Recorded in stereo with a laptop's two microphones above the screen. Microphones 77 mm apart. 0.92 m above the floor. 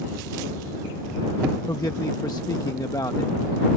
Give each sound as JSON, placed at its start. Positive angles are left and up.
{"t": 1.7, "sound": "a man speaking", "side_deg": 55}